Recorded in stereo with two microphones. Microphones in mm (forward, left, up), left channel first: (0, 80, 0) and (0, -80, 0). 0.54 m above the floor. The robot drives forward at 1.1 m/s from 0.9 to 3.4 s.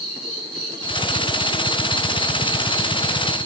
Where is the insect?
35° right (ahead or behind), 5.5 m; by 3.5 s 55° right (ahead or behind), 4 m.